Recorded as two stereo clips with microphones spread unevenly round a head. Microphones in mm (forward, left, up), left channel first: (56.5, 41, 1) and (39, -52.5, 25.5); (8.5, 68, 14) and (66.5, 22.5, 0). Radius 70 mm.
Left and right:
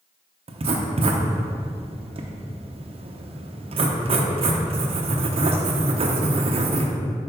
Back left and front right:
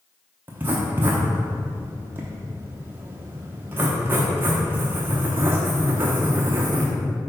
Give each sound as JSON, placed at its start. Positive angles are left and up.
{"t": 0.5, "sound": "writing", "azimuth_deg": -90, "distance_m": 0.9}